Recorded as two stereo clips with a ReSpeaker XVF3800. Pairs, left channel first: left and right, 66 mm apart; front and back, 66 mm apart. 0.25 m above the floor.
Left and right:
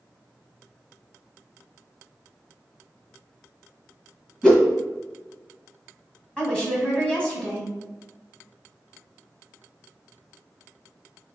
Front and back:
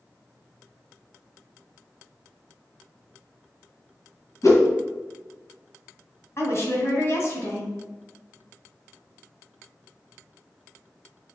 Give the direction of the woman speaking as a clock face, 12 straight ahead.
11 o'clock.